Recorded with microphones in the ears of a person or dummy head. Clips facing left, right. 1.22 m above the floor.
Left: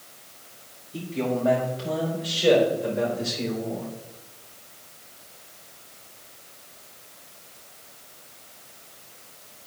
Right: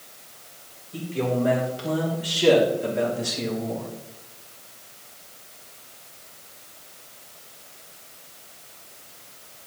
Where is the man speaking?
60° right (ahead or behind), 4 m; by 3.9 s 70° right (ahead or behind), 2.5 m.